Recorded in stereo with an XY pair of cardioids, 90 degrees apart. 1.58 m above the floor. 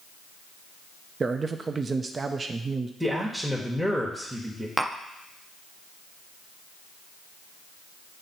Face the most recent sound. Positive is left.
turn(degrees=-10)